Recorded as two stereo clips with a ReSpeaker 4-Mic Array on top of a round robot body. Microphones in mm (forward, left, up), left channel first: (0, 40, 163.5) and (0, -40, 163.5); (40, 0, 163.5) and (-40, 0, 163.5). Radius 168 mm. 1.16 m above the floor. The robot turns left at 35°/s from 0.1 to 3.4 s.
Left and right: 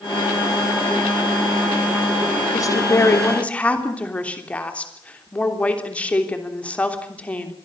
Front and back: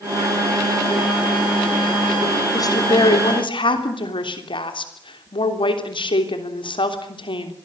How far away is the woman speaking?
About 3 m.